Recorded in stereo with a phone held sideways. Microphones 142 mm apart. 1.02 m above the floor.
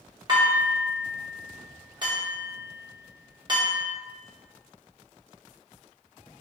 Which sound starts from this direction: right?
Dishes clattering, at 0.3 s.